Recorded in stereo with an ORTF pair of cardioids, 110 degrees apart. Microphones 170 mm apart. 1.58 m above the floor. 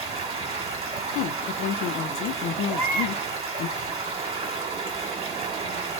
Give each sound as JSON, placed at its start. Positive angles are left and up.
{"t": 0.0, "sound": "running water", "azimuth_deg": -40, "distance_m": 1.3}
{"t": 1.1, "sound": "a woman speaking", "azimuth_deg": 70, "distance_m": 0.5}
{"t": 2.7, "sound": "a baby crying", "azimuth_deg": -35, "distance_m": 1.3}